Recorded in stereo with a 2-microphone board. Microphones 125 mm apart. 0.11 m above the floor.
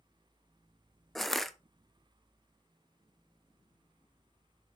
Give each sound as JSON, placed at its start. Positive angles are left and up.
{"t": 1.1, "sound": "crushing", "side_deg": 0, "distance_m": 0.6}